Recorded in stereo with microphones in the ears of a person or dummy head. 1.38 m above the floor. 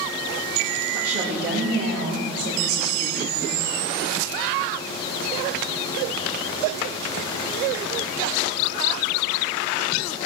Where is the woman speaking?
60° right (ahead or behind), 2.5 m; by 3.6 s 85° right, 3 m.